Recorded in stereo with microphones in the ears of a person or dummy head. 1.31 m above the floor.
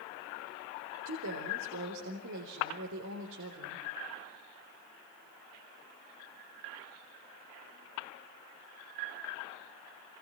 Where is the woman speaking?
65° right (ahead or behind), 3.5 m.